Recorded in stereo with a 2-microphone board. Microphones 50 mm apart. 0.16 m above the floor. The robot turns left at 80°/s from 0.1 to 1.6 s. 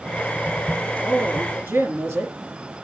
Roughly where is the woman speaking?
Ahead right.